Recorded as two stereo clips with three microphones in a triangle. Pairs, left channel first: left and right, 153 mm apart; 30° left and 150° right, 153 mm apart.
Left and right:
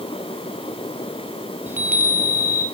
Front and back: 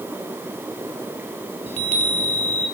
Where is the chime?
10° right, 2 m.